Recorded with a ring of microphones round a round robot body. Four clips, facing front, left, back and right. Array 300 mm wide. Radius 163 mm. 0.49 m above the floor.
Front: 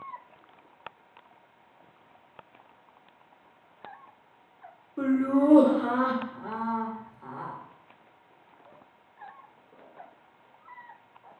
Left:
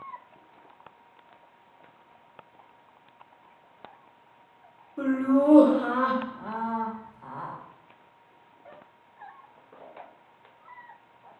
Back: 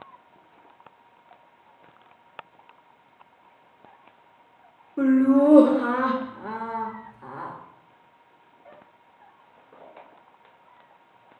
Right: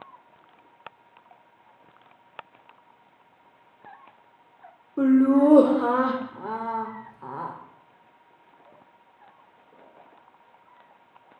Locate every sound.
5.0 s laughter: 115° right, 1.8 m